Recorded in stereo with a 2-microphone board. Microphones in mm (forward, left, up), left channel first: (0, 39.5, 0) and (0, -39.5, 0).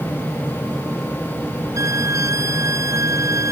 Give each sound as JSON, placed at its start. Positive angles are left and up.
{"t": 1.8, "sound": "a violin", "side_deg": -40}